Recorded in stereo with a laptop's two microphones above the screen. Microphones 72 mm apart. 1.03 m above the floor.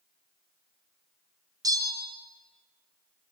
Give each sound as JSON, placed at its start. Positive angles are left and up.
{"t": 1.6, "sound": "a bell", "side_deg": -60, "distance_m": 0.5}